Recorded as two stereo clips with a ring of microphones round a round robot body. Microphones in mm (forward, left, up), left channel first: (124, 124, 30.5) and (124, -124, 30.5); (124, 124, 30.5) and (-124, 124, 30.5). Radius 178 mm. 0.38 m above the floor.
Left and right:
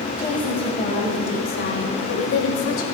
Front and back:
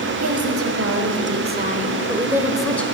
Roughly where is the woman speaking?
Behind.